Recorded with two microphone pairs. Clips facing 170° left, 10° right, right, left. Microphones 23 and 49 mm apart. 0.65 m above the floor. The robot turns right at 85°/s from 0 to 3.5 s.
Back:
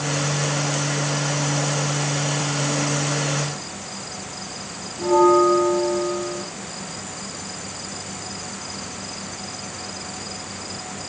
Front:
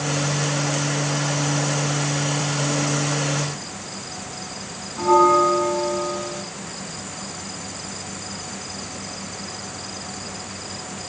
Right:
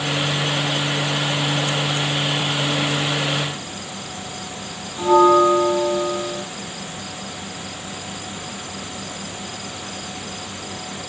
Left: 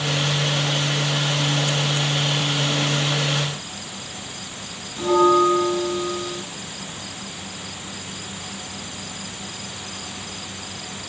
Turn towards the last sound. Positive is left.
turn(degrees=-10)